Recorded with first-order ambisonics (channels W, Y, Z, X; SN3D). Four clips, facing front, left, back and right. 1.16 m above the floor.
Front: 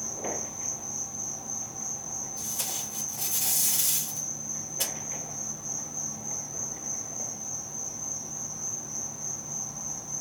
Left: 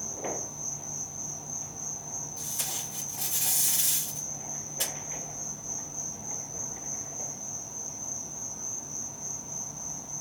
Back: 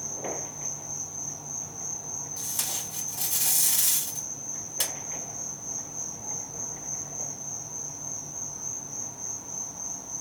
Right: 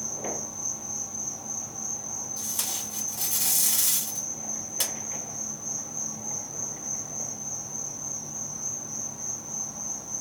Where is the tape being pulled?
135° right, 1.5 m.